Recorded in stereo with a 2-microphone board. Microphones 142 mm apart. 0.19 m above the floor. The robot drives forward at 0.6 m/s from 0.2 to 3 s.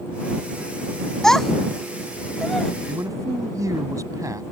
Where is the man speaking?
25° right (ahead or behind).